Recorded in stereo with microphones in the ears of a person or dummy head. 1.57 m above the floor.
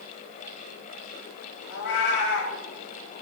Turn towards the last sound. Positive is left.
turn(degrees=65)  # may be behind; listen again after turning